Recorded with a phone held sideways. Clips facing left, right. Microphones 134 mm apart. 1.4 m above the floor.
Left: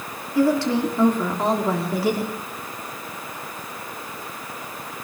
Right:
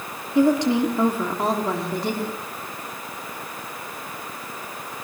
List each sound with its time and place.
0.3 s a woman speaking: 25° right (ahead or behind), 3 m; by 2.3 s 10° left (ahead or behind), 3 m